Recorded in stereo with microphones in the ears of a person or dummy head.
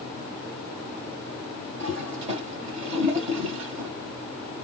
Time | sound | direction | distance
1.8 | a toilet flushing | 35° right (ahead or behind) | 2.5 m